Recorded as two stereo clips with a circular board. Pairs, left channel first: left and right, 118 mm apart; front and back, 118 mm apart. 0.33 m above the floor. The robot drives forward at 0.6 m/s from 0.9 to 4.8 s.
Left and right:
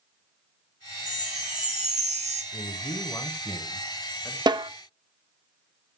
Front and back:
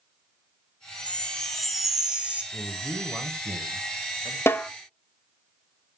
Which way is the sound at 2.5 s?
95° left.